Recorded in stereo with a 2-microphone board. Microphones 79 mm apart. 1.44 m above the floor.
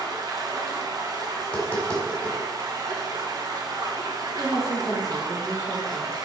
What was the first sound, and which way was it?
Running water, 55° right (ahead or behind).